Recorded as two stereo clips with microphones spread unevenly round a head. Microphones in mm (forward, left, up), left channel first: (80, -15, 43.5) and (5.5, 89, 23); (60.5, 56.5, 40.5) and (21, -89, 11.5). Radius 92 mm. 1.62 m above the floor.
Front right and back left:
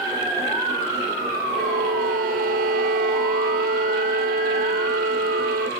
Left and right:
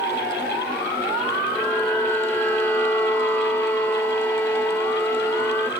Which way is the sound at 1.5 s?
155° left.